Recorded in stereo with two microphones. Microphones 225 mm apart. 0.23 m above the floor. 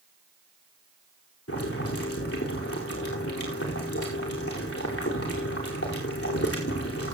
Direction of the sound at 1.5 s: 90° left.